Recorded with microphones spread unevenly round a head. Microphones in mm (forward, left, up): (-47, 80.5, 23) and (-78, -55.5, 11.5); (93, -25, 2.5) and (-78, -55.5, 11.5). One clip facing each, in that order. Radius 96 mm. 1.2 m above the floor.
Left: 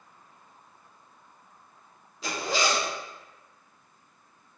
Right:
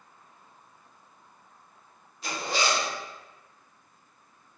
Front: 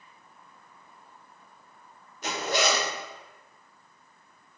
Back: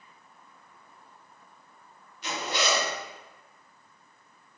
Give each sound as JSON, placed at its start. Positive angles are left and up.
{"t": 2.2, "sound": "a zipper", "azimuth_deg": 65, "distance_m": 0.6}